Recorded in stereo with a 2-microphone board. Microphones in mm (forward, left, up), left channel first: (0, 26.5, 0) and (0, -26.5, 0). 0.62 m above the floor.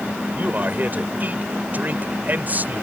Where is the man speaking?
40° right (ahead or behind).